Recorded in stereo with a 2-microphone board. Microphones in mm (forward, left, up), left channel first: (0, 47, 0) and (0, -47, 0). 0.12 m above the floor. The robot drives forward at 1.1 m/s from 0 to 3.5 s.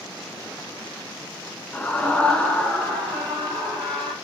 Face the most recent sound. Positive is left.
turn(degrees=10)  # may be behind; listen again after turning